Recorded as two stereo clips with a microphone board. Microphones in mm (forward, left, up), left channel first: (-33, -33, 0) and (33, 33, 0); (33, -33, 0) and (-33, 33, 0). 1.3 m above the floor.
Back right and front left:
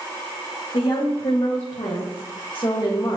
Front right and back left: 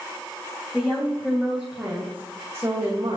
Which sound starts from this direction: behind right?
A woman speaking, at 0.7 s.